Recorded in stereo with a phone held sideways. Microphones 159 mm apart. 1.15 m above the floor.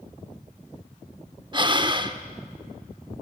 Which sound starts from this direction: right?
Breathing, at 1.5 s.